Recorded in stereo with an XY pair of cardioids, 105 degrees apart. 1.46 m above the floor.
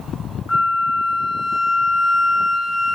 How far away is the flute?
About 0.9 m.